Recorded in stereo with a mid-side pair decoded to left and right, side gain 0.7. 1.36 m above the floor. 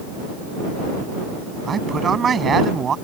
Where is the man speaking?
30° right.